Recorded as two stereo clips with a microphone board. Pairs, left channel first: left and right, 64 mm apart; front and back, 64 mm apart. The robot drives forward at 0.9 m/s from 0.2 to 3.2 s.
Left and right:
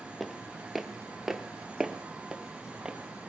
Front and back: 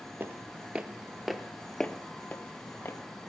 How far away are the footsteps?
About 0.8 m.